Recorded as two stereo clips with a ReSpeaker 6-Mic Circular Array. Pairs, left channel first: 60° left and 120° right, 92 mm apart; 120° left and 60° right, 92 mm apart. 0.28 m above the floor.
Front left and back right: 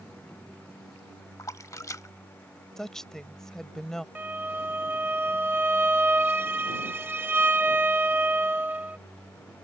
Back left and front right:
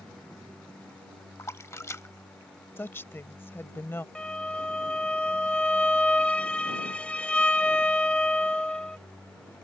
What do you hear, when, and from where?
1.4 s a splash: 85° left
2.8 s a woman speaking: 135° left
4.2 s a violin: 170° right